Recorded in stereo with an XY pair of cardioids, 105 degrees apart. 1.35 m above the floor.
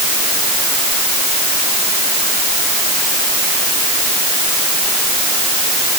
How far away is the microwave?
No microwave in this recording.